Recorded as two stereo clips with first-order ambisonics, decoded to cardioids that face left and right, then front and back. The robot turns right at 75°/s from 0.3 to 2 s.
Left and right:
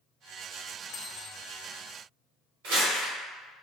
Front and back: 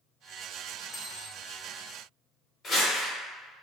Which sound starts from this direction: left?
A dropped coin, at 0.9 s.